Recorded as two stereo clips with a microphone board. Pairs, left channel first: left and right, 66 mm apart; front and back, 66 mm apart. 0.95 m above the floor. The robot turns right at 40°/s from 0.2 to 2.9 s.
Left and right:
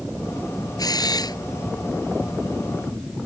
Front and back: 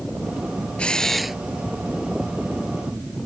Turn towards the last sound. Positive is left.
turn(degrees=155)